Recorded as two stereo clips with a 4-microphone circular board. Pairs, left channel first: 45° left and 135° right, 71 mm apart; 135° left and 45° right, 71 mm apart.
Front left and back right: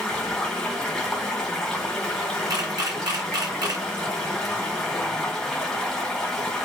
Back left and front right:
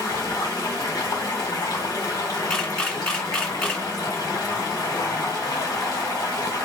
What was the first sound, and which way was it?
Running water, 125° left.